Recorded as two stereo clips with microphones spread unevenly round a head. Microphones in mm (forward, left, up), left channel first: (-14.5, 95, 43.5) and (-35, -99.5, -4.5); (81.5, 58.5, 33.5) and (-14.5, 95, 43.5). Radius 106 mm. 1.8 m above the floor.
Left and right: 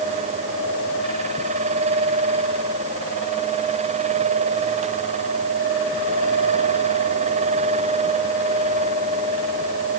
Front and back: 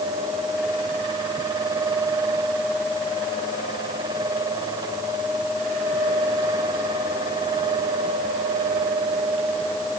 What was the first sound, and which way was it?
Only background noise.